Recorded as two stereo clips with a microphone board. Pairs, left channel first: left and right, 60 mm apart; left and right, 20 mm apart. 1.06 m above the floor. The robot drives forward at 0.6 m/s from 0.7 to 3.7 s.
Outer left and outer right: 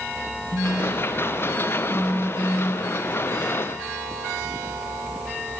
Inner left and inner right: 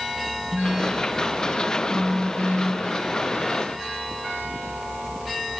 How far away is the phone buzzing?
About 2.0 m.